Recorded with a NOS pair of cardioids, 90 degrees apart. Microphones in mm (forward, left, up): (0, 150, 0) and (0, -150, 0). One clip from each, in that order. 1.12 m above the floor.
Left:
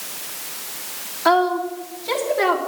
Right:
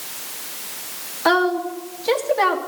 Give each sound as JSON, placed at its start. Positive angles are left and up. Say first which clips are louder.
{"t": 1.2, "sound": "a woman speaking", "louder": "left 1 dB", "azimuth_deg": -30, "distance_m": 1.5}